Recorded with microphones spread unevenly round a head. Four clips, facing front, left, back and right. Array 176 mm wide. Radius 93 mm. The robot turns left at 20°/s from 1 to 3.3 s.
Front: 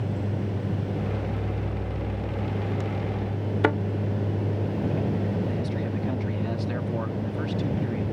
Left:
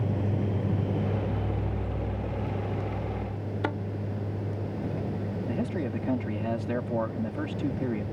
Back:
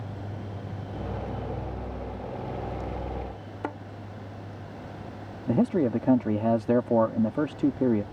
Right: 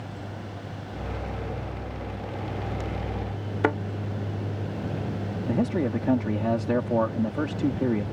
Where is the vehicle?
45° left; by 8.1 s straight ahead.